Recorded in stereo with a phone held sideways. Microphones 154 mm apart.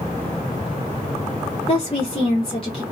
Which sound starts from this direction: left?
A woman speaking, at 1.7 s.